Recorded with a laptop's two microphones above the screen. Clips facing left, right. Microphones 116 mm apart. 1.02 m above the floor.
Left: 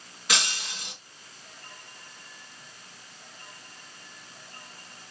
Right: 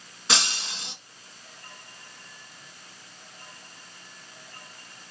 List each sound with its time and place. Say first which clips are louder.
0.3 s breaking glass: right 2 dB; 30° right (ahead or behind), 2 m